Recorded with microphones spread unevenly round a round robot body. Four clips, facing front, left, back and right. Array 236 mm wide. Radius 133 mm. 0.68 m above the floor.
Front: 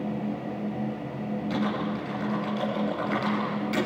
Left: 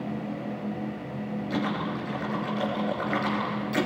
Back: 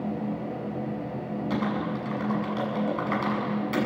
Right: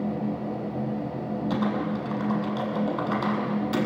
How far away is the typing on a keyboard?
About 7 m.